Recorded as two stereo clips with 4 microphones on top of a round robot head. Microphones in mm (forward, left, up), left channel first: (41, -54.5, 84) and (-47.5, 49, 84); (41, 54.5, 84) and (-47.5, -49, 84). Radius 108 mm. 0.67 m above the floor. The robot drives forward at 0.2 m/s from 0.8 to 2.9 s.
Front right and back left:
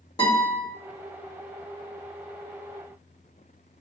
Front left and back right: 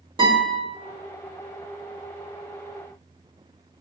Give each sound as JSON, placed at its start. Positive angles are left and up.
{"t": 0.2, "sound": "a guitar", "azimuth_deg": -95, "distance_m": 1.5}